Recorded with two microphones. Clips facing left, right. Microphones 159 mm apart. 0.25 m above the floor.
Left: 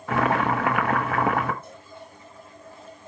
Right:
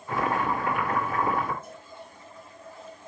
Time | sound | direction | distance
0.1 | boiling | 80° left | 0.6 m
1.6 | a cowbell | 70° left (ahead or behind) | 4.5 m